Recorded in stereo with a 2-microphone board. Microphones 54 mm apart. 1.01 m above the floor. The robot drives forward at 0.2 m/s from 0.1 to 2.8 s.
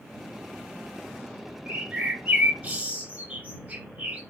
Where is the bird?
20° right (ahead or behind), 0.6 m; by 4.2 s 25° right (ahead or behind), 0.5 m.